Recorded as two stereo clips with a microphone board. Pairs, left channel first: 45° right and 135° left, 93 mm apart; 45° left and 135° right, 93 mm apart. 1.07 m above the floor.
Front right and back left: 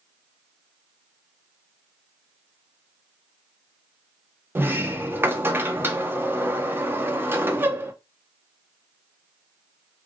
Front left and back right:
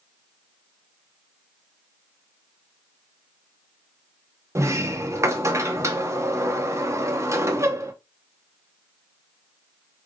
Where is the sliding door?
175° right, 0.5 m.